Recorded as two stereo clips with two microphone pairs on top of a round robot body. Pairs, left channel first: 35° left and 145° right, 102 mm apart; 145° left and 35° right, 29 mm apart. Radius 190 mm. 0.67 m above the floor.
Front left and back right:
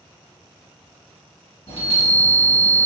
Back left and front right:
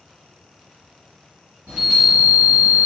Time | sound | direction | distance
1.7 | a chime | 10° left | 1.8 m